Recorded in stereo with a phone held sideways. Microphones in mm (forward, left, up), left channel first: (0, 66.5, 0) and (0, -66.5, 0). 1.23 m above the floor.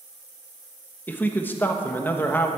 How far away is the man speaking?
About 1.4 m.